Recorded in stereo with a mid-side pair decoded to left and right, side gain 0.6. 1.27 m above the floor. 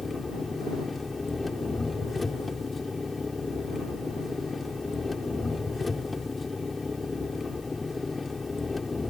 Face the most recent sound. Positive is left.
turn(degrees=15)